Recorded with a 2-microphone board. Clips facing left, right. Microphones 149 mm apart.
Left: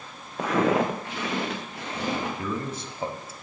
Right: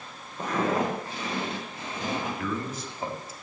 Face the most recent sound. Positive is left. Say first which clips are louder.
# left 1 dB
turn(degrees=30)  # may be behind; listen again after turning